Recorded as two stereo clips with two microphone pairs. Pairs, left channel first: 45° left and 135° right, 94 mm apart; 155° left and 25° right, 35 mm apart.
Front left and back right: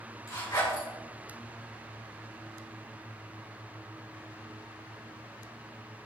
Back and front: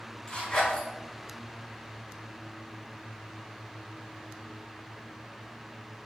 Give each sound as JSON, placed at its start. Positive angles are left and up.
{"t": 0.3, "sound": "a zipper", "azimuth_deg": 95, "distance_m": 3.0}